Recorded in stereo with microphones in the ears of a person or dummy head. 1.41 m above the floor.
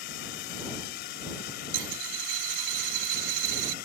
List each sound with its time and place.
0.0 s a drone: 70° left (ahead or behind); by 3.9 s 65° left (ahead or behind)
1.7 s a dropped coin: 60° right (ahead or behind)